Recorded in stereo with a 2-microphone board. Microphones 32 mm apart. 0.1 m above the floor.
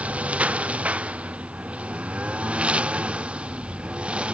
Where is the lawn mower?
40° right (ahead or behind); by 4.4 s 35° right (ahead or behind).